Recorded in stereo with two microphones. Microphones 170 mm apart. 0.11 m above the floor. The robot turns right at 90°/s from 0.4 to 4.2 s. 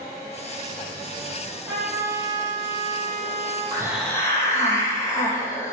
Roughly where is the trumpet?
Behind.